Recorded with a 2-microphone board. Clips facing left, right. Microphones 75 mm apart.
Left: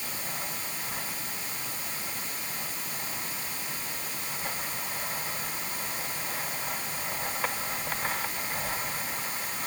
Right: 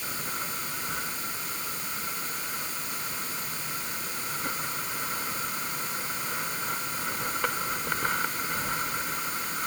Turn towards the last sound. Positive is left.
No sound to turn to.